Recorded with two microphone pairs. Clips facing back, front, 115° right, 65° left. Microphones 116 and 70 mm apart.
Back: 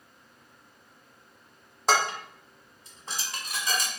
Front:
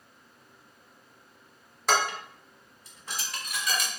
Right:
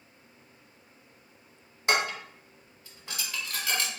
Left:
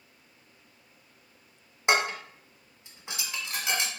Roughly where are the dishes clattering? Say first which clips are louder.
Back 1 dB, left 2 dB; behind left.